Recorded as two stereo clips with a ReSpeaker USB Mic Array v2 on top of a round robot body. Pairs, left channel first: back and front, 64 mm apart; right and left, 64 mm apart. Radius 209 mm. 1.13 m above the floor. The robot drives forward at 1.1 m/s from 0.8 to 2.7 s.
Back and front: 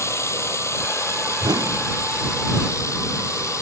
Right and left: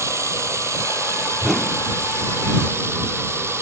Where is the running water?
135° left; by 3.6 s 140° left.